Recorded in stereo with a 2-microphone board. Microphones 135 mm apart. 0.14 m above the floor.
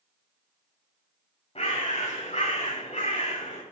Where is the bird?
45° left (ahead or behind), 6 m.